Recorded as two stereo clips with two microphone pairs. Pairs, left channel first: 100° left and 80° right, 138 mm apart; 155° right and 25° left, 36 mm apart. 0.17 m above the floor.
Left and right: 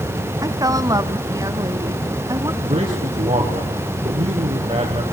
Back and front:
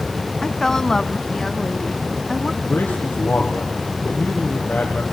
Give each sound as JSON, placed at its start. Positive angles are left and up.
{"t": 0.4, "sound": "a woman speaking", "azimuth_deg": -95, "distance_m": 1.1}
{"t": 2.6, "sound": "a man speaking", "azimuth_deg": -130, "distance_m": 5.0}